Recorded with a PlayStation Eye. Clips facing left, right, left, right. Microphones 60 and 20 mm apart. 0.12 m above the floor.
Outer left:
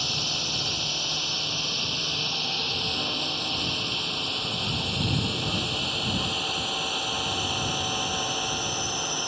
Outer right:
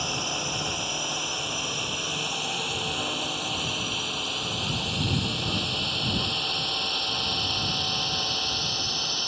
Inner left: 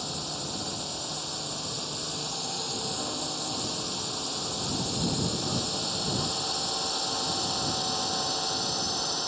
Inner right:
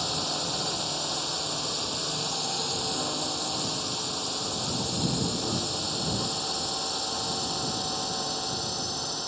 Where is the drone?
20° right (ahead or behind); by 9.3 s 15° left (ahead or behind).